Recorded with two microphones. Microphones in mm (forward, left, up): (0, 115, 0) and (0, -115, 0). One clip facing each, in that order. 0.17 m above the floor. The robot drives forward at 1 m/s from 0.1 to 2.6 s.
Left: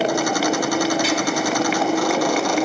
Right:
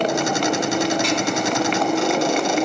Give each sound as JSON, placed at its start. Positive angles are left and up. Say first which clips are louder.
{"t": 0.0, "sound": "a motorcycle", "louder": "left 1 dB", "side_deg": 5}